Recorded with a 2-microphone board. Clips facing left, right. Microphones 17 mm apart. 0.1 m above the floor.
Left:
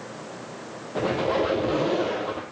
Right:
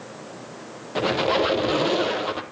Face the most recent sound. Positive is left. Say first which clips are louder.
# right 3 dB
turn(degrees=-65)  # may be behind; listen again after turning